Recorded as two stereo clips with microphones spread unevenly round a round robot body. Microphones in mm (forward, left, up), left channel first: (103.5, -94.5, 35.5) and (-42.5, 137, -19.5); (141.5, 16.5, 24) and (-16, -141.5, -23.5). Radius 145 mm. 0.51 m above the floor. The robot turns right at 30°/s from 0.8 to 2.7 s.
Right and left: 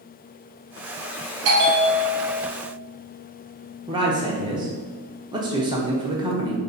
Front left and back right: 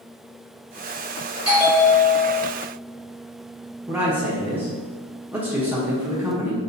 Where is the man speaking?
165° left, 0.8 m.